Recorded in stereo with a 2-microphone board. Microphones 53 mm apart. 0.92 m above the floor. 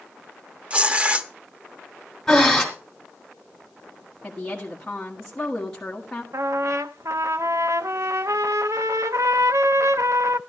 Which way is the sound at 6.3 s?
80° right.